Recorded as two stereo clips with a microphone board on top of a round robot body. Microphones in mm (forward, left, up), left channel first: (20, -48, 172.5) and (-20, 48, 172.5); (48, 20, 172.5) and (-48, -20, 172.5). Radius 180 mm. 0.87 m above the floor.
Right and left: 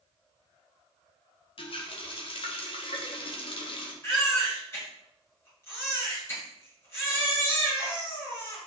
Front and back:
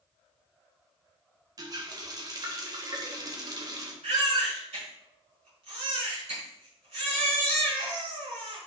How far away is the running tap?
About 1.3 m.